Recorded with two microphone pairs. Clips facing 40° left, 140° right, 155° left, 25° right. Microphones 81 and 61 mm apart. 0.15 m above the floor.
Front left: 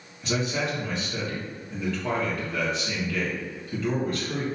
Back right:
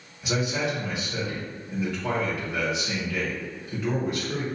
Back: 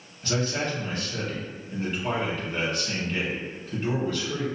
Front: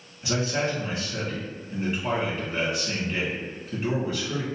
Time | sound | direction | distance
0.2 | a man speaking | 85° right | 1.5 m